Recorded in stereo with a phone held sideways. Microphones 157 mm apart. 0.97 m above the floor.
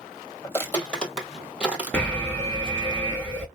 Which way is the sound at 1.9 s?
10° left (ahead or behind).